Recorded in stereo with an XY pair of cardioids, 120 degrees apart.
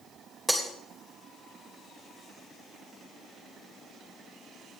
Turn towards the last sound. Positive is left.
turn(degrees=-10)